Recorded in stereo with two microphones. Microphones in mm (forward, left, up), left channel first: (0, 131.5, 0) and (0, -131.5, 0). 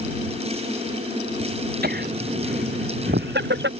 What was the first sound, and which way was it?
Laughter, 35° right (ahead or behind).